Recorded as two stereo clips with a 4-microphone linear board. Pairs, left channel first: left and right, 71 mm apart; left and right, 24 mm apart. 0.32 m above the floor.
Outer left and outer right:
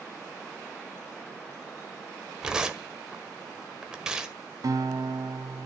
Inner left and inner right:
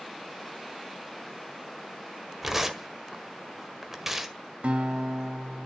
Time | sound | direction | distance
2.4 | tearing paper | 10° right (ahead or behind) | 1.5 m
4.6 | a guitar | 60° right (ahead or behind) | 1.1 m